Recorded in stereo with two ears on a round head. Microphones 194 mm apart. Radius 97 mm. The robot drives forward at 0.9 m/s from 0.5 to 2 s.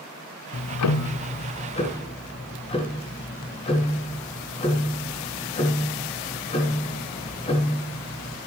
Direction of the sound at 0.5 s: 55° left (ahead or behind).